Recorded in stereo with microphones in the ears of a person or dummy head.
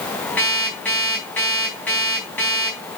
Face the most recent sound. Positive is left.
turn(degrees=5)  # may be behind; listen again after turning